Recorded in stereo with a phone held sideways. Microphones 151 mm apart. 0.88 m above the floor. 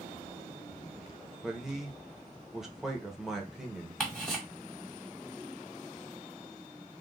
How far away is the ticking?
About 1.4 m.